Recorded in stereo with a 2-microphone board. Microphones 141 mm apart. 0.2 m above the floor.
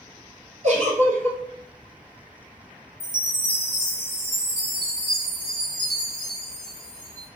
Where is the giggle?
50° right (ahead or behind), 0.9 m.